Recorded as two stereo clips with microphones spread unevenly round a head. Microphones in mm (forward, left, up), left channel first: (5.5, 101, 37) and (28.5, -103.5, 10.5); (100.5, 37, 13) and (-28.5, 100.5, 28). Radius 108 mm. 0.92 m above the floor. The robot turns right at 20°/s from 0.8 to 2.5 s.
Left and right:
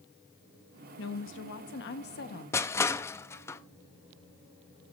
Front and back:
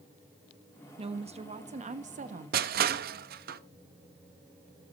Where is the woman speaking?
110° left, 1.6 m; by 2.7 s 140° left, 1.6 m.